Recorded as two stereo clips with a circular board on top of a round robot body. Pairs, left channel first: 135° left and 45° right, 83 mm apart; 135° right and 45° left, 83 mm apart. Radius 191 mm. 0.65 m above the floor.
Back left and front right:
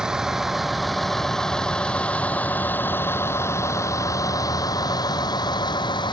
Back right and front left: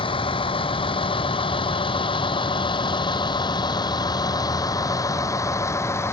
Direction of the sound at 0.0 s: 130° right.